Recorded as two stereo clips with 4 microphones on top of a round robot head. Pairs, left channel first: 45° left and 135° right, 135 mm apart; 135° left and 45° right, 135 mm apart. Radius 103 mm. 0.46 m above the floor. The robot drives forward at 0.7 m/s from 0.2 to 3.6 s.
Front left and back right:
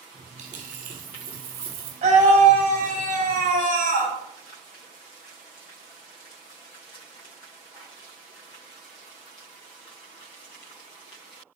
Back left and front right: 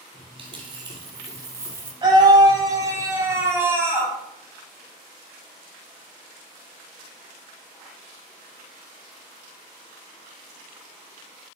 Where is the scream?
100° right, 3.5 m; by 4.1 s 115° right, 3.5 m.